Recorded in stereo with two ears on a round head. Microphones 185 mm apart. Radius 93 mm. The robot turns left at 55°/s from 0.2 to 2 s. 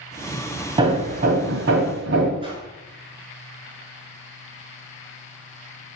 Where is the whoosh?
25° right (ahead or behind), 3.5 m.